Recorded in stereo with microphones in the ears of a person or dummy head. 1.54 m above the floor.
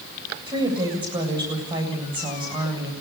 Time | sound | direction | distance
0.5 | a woman speaking | 20° right (ahead or behind) | 8 m